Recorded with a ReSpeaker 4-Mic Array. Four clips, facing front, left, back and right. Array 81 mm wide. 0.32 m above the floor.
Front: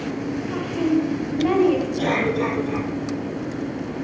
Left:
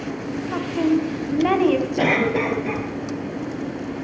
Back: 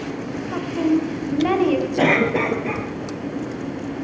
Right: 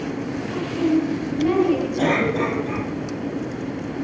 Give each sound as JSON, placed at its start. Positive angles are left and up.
{"t": 0.5, "sound": "a woman speaking", "azimuth_deg": 110, "distance_m": 2.0}
{"t": 2.0, "sound": "a cough", "azimuth_deg": 155, "distance_m": 7.0}